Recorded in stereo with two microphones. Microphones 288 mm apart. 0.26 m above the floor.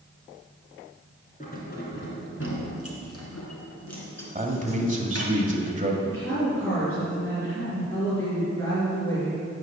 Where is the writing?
I don't hear writing.